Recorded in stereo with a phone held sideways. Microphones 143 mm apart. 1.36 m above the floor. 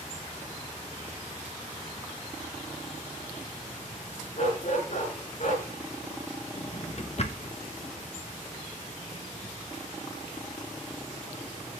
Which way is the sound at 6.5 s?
50° left (ahead or behind).